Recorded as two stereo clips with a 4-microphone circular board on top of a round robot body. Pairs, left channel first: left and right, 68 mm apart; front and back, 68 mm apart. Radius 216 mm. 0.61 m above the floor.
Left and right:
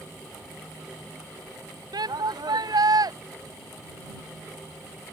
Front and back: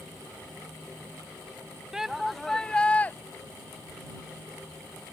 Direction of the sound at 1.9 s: 100° right.